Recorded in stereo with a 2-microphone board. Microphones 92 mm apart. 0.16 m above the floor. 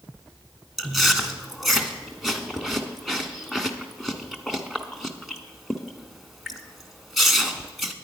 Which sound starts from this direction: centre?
Chewing, at 0.8 s.